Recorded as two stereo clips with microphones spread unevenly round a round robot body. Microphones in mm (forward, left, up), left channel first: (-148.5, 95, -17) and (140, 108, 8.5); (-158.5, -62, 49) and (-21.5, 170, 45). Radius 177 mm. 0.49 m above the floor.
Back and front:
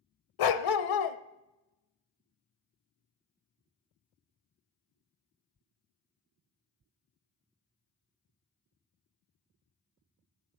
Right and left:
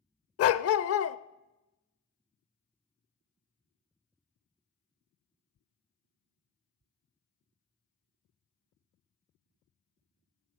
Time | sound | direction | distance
0.4 | a dog barking | 160° right | 0.7 m